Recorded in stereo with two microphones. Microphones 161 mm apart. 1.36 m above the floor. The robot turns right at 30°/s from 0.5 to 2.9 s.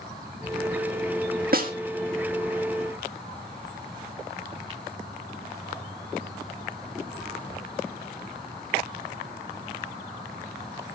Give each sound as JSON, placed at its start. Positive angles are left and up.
{"t": 1.5, "sound": "a snare drum", "side_deg": -60, "distance_m": 1.6}